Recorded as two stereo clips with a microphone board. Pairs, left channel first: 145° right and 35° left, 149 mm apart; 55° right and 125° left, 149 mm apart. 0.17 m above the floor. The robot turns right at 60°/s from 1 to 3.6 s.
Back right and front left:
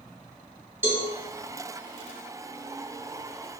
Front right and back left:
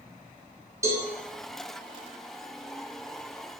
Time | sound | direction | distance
0.8 | a cowbell | 90° left | 1.0 m